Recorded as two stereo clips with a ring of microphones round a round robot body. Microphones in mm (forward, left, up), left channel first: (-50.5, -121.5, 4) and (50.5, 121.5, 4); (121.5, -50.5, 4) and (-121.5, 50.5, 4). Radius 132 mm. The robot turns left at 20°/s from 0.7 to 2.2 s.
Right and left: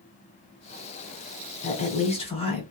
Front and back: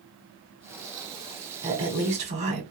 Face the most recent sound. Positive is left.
turn(degrees=-160)